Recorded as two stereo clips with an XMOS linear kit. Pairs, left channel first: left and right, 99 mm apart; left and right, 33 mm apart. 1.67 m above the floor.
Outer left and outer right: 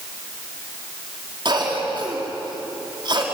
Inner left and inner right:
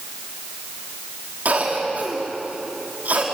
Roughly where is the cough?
Right.